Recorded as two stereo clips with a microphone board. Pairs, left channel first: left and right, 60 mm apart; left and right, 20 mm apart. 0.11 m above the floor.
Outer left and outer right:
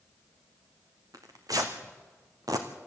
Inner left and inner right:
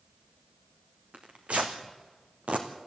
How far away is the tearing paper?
About 2 m.